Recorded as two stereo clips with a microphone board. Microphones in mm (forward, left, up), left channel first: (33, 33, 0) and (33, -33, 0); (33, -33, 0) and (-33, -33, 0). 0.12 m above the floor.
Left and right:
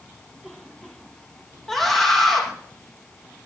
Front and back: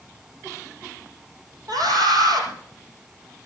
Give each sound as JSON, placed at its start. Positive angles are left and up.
{"t": 1.7, "sound": "a scream", "azimuth_deg": 175, "distance_m": 5.5}